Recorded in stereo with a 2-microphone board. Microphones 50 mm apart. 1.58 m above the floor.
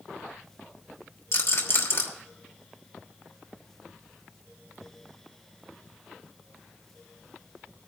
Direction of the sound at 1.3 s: 60° left (ahead or behind).